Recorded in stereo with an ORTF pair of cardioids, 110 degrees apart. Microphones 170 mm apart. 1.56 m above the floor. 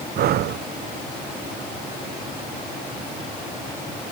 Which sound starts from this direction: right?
Breathing, at 0.2 s.